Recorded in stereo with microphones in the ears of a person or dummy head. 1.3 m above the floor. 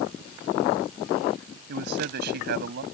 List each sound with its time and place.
1.7 s a man speaking: 60° right (ahead or behind)